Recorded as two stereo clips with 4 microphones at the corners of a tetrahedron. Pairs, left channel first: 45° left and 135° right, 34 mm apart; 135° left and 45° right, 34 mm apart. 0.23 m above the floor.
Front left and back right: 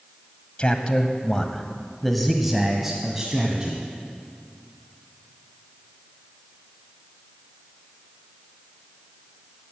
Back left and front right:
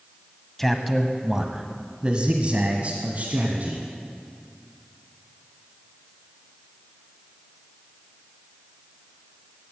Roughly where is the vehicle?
No vehicle in this recording.